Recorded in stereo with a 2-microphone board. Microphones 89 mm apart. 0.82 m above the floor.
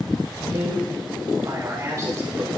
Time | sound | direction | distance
0.5 | a man speaking | 50° right (ahead or behind) | 2.5 m